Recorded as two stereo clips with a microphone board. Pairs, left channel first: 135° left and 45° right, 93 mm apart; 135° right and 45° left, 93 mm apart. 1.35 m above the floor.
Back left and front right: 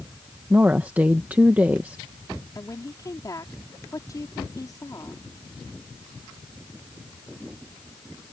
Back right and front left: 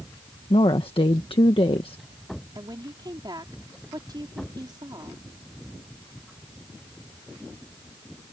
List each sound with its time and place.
0.5 s a woman speaking: 115° right
2.5 s a woman speaking: 85° left